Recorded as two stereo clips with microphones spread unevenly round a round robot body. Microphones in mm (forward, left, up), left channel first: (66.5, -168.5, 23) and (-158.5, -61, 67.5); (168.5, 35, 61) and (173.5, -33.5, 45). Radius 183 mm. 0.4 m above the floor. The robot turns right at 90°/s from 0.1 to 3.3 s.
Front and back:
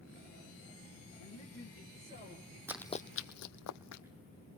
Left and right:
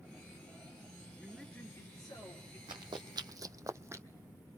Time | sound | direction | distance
1.2 | a man speaking | 10° right | 6 m
2.7 | running footsteps | 130° right | 1.0 m